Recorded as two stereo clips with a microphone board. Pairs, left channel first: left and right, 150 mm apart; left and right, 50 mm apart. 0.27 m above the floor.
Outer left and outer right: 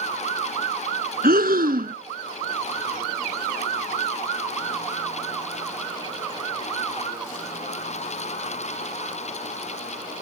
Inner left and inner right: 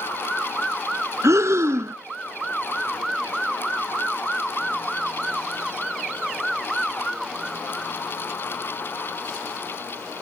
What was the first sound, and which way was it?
Breathing, 75° right (ahead or behind).